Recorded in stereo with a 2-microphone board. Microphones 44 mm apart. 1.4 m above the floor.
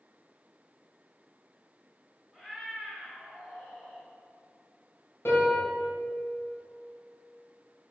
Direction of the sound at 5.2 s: 70° left (ahead or behind).